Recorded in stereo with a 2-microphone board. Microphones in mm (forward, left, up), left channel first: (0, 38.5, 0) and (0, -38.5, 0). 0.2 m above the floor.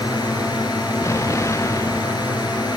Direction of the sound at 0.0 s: 60° left (ahead or behind).